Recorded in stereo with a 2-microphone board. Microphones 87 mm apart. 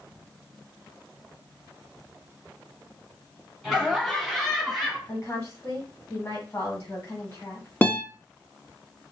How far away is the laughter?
About 2 m.